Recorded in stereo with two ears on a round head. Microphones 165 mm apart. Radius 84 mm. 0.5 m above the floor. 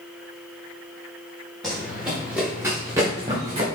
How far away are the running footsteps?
About 3 m.